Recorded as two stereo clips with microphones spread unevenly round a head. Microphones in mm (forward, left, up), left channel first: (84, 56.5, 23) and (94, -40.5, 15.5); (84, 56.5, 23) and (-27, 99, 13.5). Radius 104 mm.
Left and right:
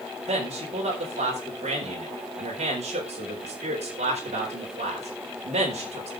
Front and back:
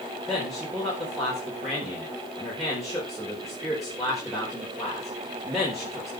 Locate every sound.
0.3 s a man speaking: 110° right, 4 m